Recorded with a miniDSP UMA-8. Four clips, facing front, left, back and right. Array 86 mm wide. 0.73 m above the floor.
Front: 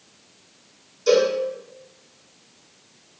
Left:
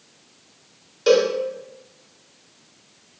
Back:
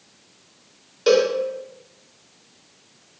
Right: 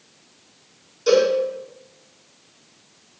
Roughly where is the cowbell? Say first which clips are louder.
Even, back 1 dB; behind left.